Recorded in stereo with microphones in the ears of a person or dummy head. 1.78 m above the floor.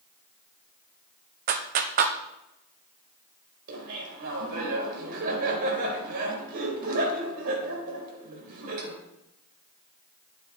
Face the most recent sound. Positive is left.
turn(degrees=-65)  # may be behind; listen again after turning